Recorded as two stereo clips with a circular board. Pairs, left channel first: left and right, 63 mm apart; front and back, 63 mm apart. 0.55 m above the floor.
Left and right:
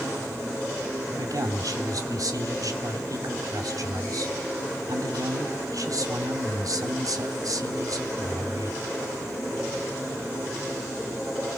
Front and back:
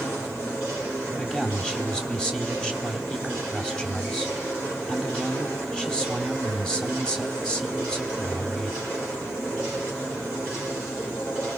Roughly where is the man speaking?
Right.